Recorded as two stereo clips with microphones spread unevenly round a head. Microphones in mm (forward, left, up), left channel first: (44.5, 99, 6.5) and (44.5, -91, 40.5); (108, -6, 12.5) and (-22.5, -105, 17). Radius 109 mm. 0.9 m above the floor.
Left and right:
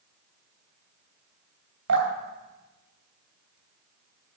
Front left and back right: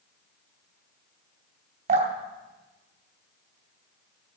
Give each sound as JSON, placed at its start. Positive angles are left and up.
{"t": 1.9, "sound": "dripping", "azimuth_deg": -100, "distance_m": 2.5}